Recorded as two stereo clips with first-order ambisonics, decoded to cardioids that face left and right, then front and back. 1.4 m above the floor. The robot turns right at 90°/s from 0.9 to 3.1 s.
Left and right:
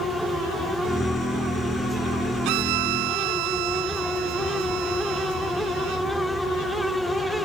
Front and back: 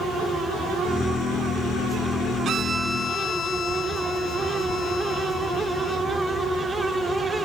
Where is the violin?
120° right; by 6.0 s 60° right.